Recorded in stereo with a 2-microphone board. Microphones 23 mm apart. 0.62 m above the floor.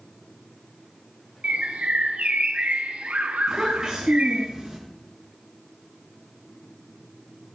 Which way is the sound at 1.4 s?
75° right (ahead or behind).